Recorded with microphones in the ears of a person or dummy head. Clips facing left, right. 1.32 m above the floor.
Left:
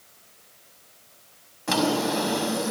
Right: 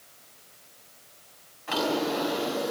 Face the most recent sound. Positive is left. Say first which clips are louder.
# left 3 dB
turn(degrees=65)  # may be behind; listen again after turning